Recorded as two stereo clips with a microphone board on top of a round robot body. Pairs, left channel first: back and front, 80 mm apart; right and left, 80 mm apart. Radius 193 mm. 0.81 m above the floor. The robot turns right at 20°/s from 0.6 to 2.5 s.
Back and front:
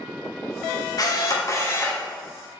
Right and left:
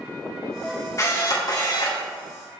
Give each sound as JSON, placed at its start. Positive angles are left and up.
{"t": 1.0, "sound": "a camera shutter", "azimuth_deg": -140, "distance_m": 2.5}